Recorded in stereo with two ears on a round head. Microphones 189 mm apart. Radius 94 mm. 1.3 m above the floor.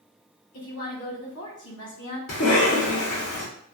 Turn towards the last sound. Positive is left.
turn(degrees=65)  # may be behind; listen again after turning